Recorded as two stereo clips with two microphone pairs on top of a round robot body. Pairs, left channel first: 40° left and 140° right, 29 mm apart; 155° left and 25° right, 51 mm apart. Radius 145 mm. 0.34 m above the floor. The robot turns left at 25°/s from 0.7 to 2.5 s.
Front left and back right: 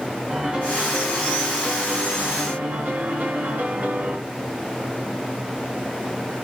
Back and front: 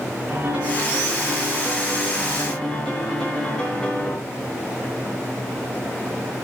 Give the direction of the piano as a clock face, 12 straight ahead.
3 o'clock.